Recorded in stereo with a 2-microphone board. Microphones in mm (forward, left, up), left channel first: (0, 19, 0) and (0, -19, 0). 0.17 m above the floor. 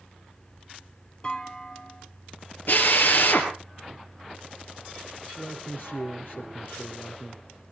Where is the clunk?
25° left (ahead or behind), 1.4 m.